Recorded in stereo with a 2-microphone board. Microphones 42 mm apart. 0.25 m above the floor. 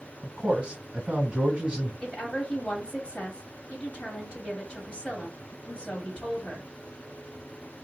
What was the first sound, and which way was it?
A man speaking, 25° right (ahead or behind).